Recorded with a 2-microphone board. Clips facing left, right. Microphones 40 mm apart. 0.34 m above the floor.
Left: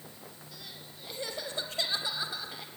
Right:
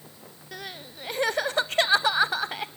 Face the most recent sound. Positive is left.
turn(degrees=-70)  # may be behind; listen again after turning